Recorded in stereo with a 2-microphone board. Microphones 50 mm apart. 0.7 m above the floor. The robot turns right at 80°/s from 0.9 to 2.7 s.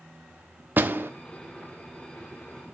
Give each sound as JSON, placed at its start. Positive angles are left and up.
{"t": 0.8, "sound": "a door slam", "side_deg": -45, "distance_m": 0.8}